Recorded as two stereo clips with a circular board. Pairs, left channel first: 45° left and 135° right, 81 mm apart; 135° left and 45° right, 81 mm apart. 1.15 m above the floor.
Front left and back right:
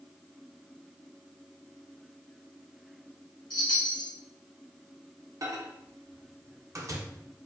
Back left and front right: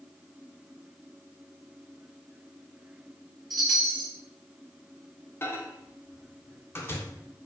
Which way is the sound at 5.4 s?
170° right.